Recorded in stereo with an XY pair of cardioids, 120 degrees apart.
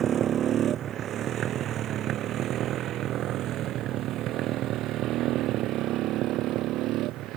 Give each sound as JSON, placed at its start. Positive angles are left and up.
{"t": 0.0, "sound": "a motorcycle", "azimuth_deg": -50}